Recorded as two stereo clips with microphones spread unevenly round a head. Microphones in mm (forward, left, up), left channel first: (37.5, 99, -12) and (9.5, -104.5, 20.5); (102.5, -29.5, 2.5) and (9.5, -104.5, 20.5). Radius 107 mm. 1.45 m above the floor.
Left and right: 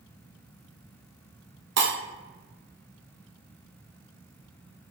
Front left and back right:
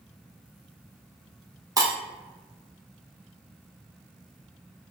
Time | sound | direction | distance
1.8 | breaking glass | 95° right | 1.1 m